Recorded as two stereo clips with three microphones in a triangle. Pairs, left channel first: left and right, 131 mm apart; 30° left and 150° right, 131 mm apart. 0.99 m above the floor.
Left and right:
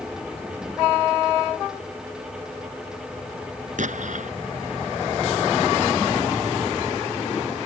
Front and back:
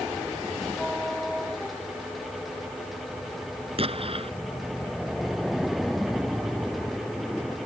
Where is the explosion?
105° right.